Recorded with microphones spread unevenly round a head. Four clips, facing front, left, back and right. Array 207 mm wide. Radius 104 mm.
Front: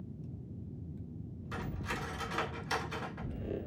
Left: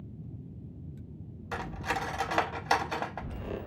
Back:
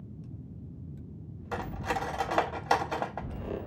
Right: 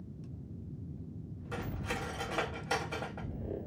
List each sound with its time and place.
1.5 s cutlery clinking: 160° left, 0.8 m